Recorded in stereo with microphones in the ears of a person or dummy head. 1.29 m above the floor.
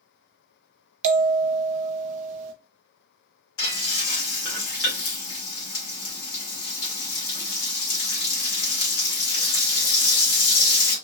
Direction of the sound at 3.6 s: 75° left (ahead or behind).